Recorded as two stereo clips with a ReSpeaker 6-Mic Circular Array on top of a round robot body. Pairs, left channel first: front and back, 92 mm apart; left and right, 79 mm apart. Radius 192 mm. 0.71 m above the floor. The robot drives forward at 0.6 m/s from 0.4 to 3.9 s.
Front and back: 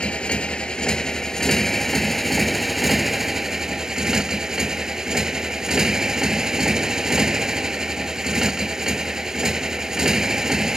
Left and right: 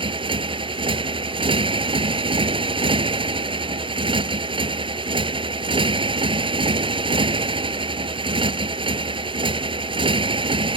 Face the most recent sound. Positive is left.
turn(degrees=-95)